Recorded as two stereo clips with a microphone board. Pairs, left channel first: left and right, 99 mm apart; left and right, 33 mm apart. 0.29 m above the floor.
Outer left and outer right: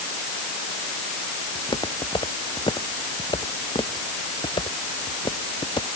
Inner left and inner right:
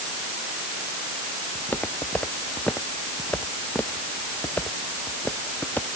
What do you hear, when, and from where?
1.6 s footsteps: 50° left (ahead or behind); by 5.9 s 60° left (ahead or behind)